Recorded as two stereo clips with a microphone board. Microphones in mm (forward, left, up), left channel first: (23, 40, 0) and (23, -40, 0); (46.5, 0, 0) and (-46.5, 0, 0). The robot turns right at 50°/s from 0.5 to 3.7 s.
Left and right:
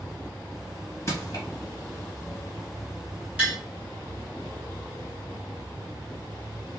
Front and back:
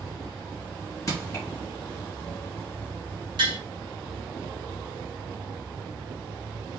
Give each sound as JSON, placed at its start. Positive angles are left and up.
{"t": 1.1, "sound": "crushing", "azimuth_deg": 45, "distance_m": 1.2}
{"t": 3.4, "sound": "tapping", "azimuth_deg": -160, "distance_m": 1.4}